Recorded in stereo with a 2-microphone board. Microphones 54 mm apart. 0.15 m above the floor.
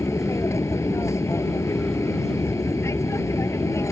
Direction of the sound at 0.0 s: 60° left (ahead or behind).